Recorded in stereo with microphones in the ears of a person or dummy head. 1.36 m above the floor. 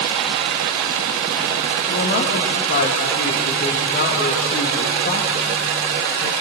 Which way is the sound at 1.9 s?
50° left (ahead or behind).